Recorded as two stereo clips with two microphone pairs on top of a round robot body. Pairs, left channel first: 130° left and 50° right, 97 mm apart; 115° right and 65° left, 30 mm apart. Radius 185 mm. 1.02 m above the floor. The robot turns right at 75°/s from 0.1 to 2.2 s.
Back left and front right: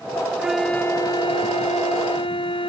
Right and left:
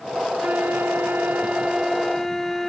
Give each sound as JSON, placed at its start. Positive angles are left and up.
{"t": 0.4, "sound": "a flute", "azimuth_deg": 25}